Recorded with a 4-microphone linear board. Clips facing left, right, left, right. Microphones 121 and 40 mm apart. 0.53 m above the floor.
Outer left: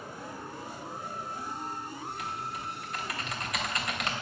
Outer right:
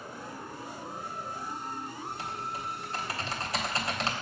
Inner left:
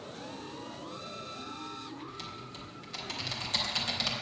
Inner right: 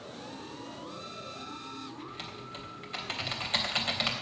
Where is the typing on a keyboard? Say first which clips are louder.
Even, inner right 1 dB; 30° right (ahead or behind), 3 m.